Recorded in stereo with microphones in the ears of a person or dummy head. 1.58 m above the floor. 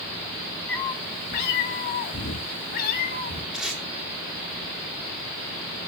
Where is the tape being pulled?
Centre (ahead or behind), 4 m.